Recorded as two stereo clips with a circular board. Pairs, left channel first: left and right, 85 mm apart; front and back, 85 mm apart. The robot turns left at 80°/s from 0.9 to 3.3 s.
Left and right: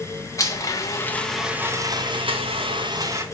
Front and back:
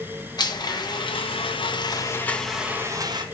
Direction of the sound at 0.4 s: 40° left.